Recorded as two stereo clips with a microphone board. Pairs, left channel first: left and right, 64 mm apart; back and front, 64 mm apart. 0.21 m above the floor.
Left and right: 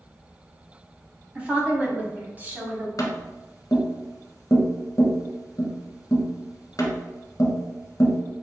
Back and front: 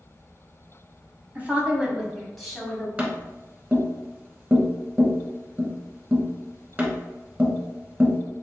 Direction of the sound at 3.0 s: 65° left.